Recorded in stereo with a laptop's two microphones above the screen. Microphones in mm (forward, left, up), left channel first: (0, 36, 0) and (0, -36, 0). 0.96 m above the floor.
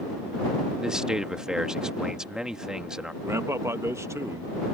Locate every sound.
0.8 s a man speaking: 10° right (ahead or behind)
3.2 s a man speaking: 40° right (ahead or behind)